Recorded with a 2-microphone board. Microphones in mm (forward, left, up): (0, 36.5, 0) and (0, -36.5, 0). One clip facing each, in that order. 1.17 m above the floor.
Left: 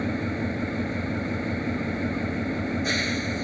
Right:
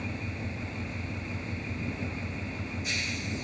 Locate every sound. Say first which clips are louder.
0.0 s an engine running: left 10 dB; 55° left (ahead or behind)